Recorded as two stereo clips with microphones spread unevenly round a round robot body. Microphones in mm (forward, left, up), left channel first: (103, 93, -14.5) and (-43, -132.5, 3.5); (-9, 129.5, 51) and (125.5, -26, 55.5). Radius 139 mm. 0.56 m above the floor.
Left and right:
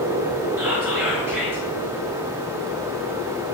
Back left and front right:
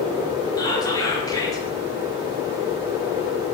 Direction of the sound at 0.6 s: 155° left.